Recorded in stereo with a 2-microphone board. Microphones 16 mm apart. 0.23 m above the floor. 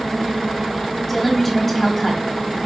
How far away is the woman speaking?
About 1.0 m.